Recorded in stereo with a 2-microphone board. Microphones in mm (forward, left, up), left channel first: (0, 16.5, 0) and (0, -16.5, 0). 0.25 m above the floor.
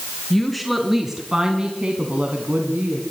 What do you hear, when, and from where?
0.3 s a woman speaking: 5° left (ahead or behind), 3.5 m; by 3.0 s 60° right (ahead or behind), 3 m